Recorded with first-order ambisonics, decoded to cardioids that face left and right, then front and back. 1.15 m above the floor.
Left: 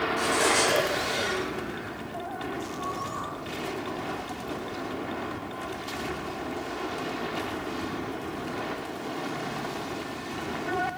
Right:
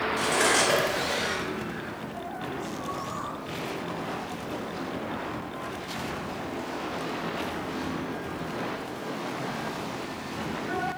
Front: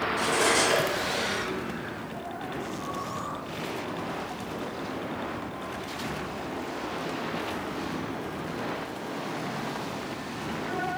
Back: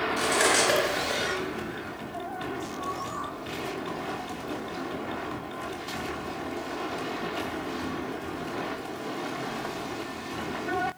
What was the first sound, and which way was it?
Cutlery clinking, 175° right.